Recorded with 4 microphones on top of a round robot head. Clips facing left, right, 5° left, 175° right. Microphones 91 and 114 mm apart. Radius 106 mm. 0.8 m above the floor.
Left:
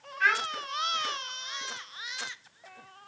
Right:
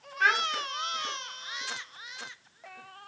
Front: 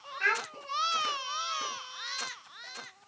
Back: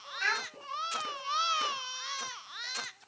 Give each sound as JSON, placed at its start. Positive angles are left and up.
{"t": 0.2, "sound": "a child speaking", "azimuth_deg": -45, "distance_m": 2.0}